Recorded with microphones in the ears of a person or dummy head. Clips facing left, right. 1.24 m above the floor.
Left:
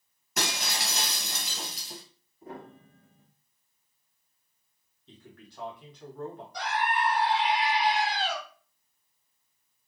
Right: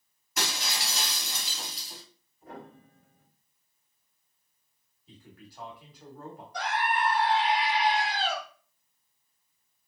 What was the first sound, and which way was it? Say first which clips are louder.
Breaking glass: left 2 dB; 50° left (ahead or behind).